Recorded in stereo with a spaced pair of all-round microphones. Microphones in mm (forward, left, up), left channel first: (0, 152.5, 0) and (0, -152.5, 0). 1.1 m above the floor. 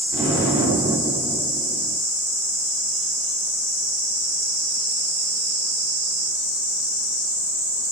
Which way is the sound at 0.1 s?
20° right (ahead or behind).